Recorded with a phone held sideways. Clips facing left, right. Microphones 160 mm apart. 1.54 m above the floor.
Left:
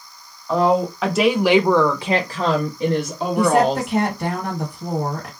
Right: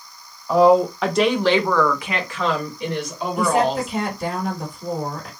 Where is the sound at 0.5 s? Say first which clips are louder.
Right 4 dB; 5° right (ahead or behind), 0.9 m; by 3.9 s 35° left (ahead or behind), 1.1 m.